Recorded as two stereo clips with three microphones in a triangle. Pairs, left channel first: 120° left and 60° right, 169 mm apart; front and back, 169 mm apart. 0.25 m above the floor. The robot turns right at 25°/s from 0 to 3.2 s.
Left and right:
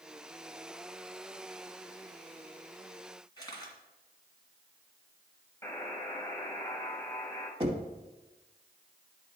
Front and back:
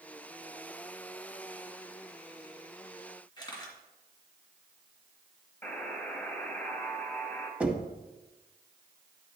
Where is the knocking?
100° right, 1.0 m.